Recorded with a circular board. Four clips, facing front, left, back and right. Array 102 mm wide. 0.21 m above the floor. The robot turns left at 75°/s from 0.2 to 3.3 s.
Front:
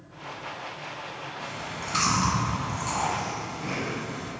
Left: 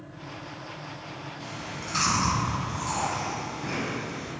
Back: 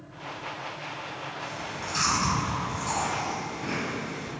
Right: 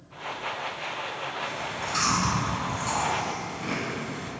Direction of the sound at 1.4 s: 55° left.